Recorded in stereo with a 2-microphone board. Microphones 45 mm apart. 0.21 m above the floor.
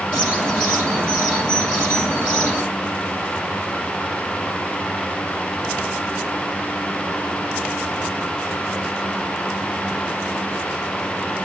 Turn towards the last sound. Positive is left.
turn(degrees=-50)  # may be behind; listen again after turning